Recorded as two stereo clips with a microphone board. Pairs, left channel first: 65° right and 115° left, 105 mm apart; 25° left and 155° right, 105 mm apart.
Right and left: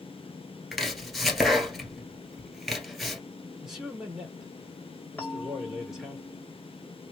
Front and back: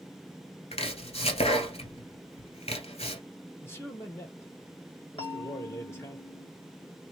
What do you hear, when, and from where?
0.7 s chopping: 25° left, 1.4 m
3.6 s a man speaking: 35° left, 1.5 m
5.2 s a bell: straight ahead, 1.0 m